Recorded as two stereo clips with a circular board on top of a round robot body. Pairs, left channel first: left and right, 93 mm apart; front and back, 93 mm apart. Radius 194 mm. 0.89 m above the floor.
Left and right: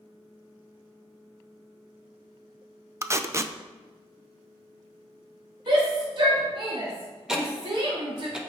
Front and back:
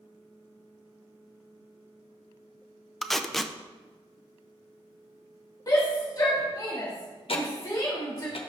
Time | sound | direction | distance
3.0 | tape being pulled | 85° right | 0.8 m
5.7 | a shout | 55° right | 1.4 m
7.3 | ticking | 5° right | 1.2 m